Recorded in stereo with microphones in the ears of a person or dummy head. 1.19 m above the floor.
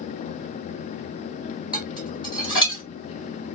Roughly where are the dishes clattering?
Left.